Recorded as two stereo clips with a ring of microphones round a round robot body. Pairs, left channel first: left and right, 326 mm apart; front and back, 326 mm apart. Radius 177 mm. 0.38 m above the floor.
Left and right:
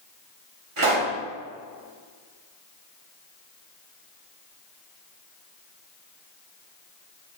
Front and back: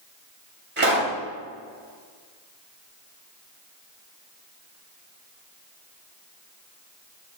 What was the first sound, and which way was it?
A pop, 125° right.